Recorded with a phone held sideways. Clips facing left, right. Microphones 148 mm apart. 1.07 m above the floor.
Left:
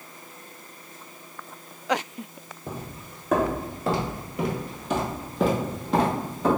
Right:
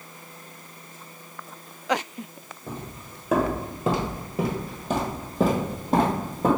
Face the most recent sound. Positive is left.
turn(degrees=-55)  # may be behind; listen again after turning